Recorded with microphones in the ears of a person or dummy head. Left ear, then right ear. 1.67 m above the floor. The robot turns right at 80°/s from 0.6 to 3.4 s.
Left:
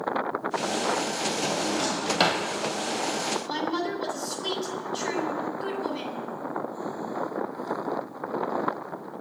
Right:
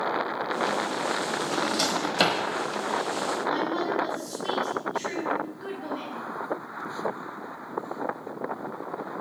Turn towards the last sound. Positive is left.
turn(degrees=30)  # may be behind; listen again after turning